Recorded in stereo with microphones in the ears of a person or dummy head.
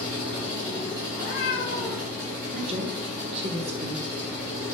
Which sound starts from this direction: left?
A cat meowing, at 1.1 s.